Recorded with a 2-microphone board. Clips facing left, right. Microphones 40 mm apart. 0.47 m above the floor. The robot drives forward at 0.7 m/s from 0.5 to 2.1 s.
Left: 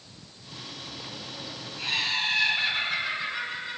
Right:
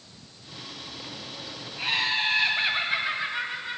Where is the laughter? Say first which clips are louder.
Right 2 dB; 25° right (ahead or behind), 3.5 m.